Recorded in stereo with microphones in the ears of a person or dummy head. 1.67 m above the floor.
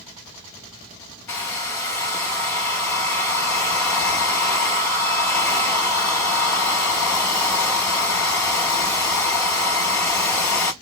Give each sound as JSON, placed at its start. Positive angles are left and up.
{"t": 1.3, "sound": "a hair dryer", "side_deg": 10, "distance_m": 1.2}